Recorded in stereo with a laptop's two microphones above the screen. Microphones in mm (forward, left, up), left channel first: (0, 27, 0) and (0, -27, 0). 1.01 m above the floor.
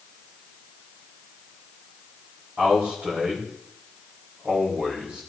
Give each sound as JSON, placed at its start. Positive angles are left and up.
{"t": 2.6, "sound": "a man speaking", "side_deg": -25, "distance_m": 5.0}